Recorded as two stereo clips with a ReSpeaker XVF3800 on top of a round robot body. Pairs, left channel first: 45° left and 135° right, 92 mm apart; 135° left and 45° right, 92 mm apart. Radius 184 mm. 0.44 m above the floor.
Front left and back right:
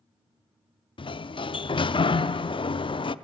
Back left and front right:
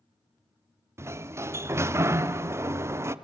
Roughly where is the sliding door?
Ahead.